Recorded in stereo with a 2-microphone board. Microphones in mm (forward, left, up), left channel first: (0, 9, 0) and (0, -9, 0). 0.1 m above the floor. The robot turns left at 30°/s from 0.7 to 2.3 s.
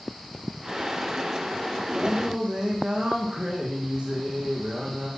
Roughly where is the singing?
Right.